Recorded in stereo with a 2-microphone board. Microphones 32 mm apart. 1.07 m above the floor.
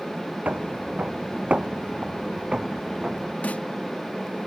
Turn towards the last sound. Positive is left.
turn(degrees=65)  # may be behind; listen again after turning